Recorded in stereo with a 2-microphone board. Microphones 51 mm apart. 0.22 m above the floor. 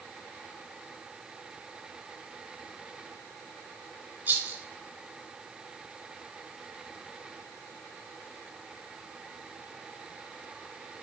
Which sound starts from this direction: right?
A rattle, at 4.3 s.